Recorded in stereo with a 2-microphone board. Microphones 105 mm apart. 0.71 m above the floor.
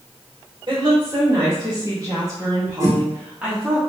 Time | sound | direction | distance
0.7 | a woman speaking | 55° right (ahead or behind) | 2.5 m
2.8 | a whoosh | 25° right (ahead or behind) | 1.1 m